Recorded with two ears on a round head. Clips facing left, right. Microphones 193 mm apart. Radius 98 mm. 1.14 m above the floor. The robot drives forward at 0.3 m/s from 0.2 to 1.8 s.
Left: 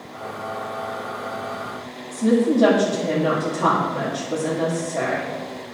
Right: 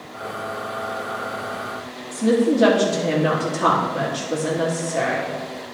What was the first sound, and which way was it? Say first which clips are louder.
A woman speaking: even; 5° right (ahead or behind).